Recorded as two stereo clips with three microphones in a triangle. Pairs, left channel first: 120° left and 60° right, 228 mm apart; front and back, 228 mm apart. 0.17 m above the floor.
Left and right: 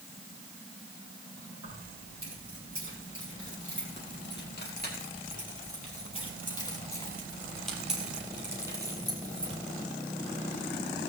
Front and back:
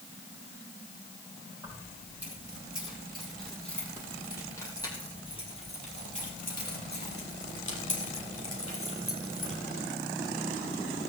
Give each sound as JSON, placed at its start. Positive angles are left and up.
{"t": 1.6, "sound": "keys jangling", "azimuth_deg": 100, "distance_m": 5.5}